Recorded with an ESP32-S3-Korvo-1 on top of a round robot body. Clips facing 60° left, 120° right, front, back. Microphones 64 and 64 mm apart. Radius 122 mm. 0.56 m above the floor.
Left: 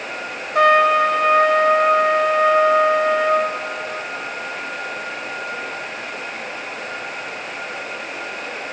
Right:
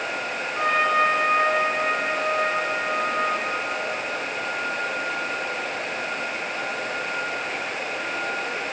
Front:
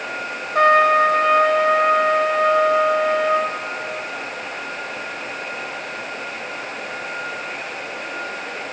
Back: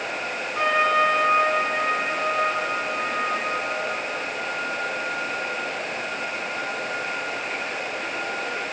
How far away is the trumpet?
About 0.6 m.